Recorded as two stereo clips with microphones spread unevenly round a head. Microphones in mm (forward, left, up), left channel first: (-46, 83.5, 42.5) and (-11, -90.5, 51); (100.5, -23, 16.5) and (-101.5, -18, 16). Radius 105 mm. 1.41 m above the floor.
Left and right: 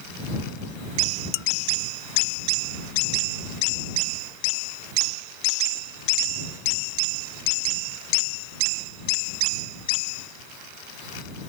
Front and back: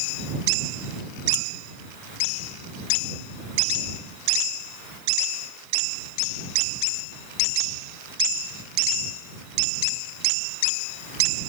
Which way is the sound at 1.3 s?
70° left.